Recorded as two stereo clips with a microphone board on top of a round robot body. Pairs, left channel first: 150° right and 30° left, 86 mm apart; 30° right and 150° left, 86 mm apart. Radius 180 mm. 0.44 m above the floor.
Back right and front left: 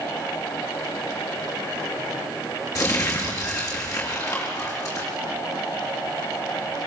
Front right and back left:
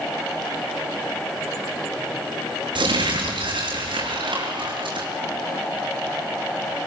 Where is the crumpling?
160° left, 7.5 m.